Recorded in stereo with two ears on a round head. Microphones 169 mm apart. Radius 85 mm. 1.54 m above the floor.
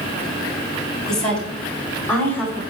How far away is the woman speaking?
About 4.5 m.